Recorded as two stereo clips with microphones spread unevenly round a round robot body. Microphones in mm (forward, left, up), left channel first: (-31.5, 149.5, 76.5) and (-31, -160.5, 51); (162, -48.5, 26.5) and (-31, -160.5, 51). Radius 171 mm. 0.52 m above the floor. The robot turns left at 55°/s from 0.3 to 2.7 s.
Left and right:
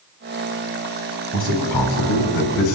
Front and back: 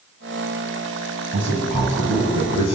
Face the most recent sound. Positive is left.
turn(degrees=70)